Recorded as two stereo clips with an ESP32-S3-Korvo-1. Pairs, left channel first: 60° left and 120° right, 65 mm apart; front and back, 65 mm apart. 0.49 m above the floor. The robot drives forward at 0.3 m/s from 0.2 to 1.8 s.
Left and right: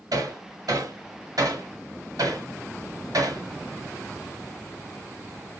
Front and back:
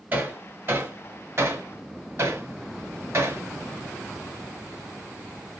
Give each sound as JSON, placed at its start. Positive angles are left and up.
{"t": 0.1, "sound": "hammering", "azimuth_deg": -120, "distance_m": 1.1}